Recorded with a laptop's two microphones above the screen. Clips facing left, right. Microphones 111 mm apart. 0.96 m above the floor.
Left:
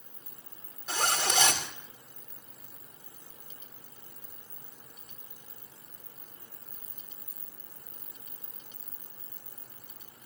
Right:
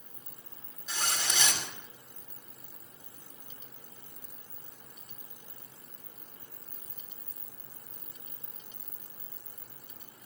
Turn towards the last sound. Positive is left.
turn(degrees=50)  # may be behind; listen again after turning